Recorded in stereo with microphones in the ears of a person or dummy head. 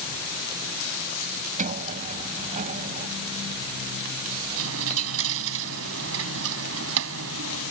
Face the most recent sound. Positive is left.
turn(degrees=-75)  # may be behind; listen again after turning